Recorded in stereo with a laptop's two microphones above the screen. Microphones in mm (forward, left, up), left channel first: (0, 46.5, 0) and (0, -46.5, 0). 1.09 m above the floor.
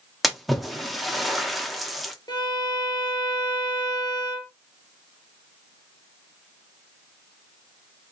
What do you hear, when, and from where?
0.2 s a splash: centre (ahead or behind), 1.2 m
2.3 s a violin: 50° left (ahead or behind), 0.9 m